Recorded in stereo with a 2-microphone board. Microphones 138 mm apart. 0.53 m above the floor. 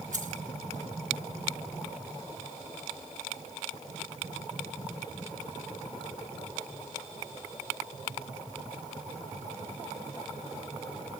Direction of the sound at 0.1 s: 70° right (ahead or behind).